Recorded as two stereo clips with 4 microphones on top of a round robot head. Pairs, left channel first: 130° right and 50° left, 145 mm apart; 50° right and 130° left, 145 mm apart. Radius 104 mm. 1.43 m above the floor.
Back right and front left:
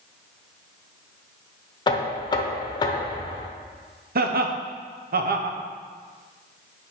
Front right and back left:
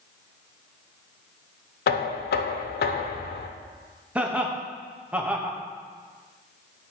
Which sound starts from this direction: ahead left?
Laughter, at 4.2 s.